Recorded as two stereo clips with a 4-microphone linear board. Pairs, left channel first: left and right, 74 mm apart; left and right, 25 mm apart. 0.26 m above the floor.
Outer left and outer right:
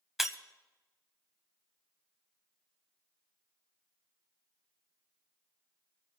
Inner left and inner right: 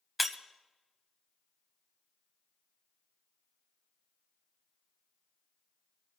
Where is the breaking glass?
5° right (ahead or behind), 0.9 m.